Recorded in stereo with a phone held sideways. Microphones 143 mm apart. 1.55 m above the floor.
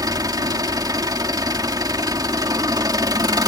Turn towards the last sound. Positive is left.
turn(degrees=-25)  # may be behind; listen again after turning